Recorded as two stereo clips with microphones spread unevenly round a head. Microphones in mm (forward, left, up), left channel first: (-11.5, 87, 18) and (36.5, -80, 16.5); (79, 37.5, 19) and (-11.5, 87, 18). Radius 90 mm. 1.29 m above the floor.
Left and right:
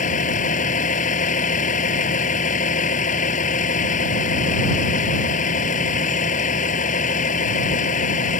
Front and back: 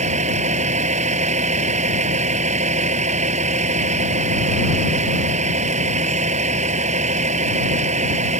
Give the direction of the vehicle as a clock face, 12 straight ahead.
7 o'clock.